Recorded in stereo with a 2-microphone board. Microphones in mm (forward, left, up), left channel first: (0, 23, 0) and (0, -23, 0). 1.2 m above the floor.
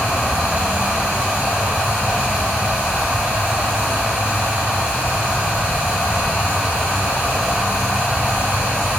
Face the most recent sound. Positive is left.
turn(degrees=-35)  # may be behind; listen again after turning